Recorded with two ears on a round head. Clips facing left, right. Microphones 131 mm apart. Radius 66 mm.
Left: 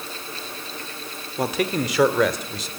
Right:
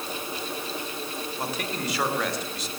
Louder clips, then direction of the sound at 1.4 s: Left 10 dB; 60° left (ahead or behind).